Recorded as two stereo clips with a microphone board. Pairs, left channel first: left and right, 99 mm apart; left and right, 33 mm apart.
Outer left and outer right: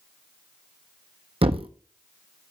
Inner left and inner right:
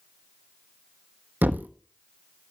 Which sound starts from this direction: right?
A thud, at 1.4 s.